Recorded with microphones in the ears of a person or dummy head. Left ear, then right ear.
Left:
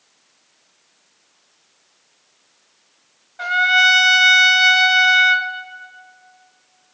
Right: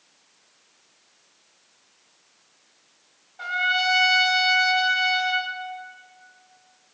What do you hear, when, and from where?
3.4 s a trumpet: 30° left (ahead or behind), 0.6 m